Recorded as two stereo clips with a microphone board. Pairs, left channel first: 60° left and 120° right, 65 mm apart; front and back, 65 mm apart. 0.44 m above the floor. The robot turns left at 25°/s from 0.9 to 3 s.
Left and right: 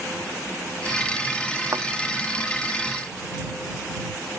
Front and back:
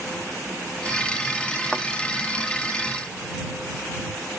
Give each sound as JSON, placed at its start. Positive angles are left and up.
{"t": 1.7, "sound": "a thud", "azimuth_deg": -85}